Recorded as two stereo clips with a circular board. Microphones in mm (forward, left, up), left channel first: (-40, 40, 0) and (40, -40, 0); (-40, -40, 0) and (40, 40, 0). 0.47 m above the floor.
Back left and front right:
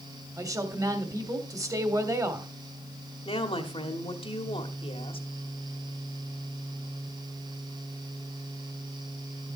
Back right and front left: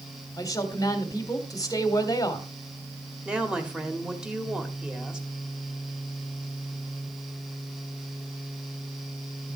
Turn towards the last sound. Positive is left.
turn(degrees=125)